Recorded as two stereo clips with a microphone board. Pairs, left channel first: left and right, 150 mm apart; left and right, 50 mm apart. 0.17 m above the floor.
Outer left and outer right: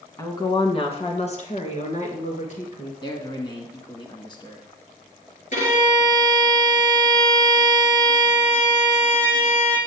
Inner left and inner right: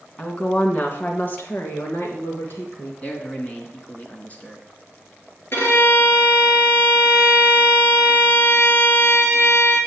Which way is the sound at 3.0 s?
30° left (ahead or behind).